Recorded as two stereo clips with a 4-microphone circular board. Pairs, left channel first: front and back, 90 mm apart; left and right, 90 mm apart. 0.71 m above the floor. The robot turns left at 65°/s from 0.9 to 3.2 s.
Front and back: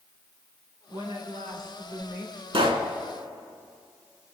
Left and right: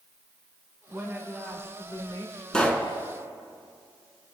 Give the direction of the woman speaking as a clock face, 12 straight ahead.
5 o'clock.